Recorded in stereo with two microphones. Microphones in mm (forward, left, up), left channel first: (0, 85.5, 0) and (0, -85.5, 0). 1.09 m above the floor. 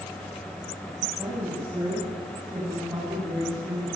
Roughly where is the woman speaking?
Centre.